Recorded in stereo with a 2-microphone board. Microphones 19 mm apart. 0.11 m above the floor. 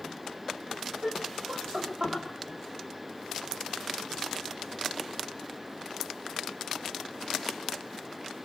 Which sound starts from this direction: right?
Laughter, at 1.0 s.